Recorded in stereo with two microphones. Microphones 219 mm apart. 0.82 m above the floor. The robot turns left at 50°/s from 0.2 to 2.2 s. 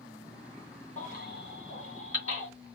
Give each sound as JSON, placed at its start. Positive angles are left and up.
{"t": 1.0, "sound": "a baby crying", "side_deg": 35, "distance_m": 2.5}